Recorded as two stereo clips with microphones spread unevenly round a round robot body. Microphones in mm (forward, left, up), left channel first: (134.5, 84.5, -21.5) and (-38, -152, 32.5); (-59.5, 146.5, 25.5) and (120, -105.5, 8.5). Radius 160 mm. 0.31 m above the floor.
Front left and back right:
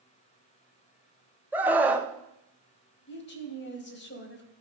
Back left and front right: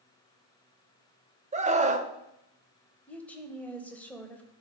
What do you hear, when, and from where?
1.5 s a scream: 25° right, 1.0 m
3.1 s a woman speaking: 40° left, 1.5 m